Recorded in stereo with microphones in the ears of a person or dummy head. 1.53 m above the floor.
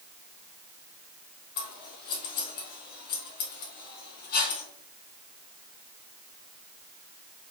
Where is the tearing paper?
No tearing paper in this recording.